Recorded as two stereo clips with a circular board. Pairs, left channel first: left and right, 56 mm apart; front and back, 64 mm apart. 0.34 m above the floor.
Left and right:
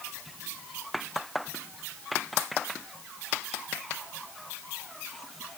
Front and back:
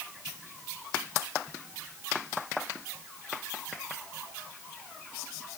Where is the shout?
No shout in this recording.